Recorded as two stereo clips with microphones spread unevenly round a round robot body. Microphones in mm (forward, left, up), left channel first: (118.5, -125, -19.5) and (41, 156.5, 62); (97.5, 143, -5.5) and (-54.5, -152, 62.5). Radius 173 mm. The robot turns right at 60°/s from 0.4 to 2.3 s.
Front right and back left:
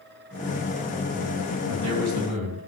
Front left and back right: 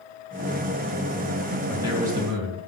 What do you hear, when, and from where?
1.7 s a man speaking: 145° left, 3 m; by 2.7 s 175° right, 3 m